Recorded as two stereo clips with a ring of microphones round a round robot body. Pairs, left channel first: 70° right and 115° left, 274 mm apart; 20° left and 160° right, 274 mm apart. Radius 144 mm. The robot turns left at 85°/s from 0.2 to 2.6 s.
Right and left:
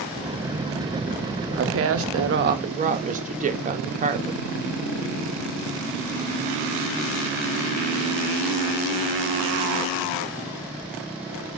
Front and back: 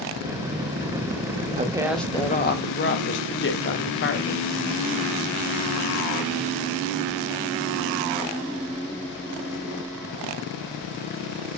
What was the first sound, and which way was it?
A woman speaking, 145° left.